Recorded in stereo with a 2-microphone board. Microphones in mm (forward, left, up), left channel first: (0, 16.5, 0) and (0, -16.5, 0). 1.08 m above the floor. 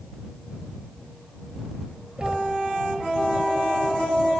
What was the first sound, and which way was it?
Knocking, 25° right (ahead or behind).